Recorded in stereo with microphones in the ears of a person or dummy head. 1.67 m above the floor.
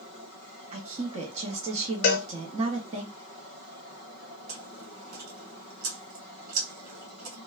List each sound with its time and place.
0.7 s a woman speaking: 40° right (ahead or behind), 0.7 m
2.0 s a cowbell: 55° left (ahead or behind), 0.5 m
4.5 s chewing: 55° right (ahead or behind), 1.9 m